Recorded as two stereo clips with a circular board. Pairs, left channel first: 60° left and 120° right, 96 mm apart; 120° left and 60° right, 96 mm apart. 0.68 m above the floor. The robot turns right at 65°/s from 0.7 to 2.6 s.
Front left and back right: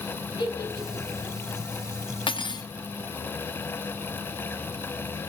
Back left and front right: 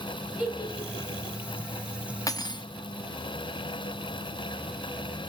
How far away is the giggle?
About 3 m.